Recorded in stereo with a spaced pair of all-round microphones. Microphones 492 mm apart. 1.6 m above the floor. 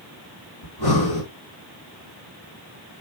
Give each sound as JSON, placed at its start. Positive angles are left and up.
{"t": 0.6, "sound": "breathing", "side_deg": 50, "distance_m": 4.5}